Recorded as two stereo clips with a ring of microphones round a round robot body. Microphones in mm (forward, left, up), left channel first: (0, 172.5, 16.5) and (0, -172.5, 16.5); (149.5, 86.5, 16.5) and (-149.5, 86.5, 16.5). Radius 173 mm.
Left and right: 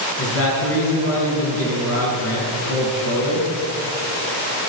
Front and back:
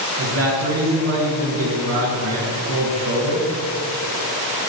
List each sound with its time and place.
0.2 s a man speaking: 140° left, 6 m